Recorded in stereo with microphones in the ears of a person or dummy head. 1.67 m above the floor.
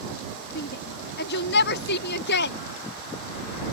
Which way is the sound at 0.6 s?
60° left (ahead or behind).